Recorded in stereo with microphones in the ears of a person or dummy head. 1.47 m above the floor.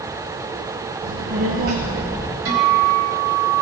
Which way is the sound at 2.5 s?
70° right (ahead or behind).